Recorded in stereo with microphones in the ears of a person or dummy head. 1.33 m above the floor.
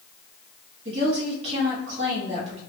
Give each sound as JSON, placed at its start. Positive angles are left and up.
{"t": 0.8, "sound": "a woman speaking", "side_deg": -35, "distance_m": 2.0}